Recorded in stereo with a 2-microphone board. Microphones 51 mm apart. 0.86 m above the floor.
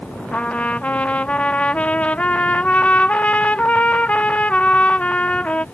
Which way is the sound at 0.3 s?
25° left (ahead or behind).